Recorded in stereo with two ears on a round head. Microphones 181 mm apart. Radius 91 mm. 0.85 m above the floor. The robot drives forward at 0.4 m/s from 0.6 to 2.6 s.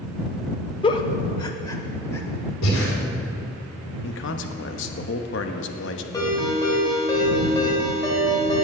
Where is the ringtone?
20° left (ahead or behind), 2.5 m.